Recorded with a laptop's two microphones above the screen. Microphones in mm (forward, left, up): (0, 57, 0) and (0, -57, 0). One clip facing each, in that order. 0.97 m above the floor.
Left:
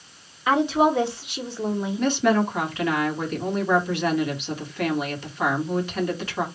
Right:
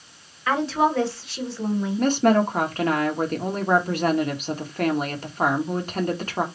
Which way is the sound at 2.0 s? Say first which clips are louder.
Right 2 dB; 45° right (ahead or behind).